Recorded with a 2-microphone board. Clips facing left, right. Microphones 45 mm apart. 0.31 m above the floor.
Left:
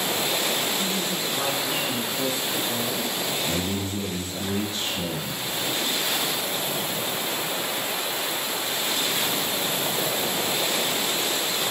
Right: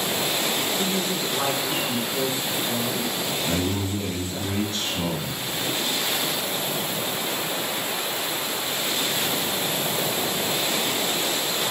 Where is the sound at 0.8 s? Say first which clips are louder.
Right 2 dB; 30° right (ahead or behind), 2 m.